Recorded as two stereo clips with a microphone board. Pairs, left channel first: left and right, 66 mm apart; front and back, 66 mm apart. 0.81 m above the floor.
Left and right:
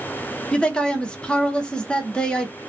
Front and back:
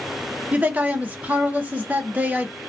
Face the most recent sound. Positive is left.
turn(degrees=145)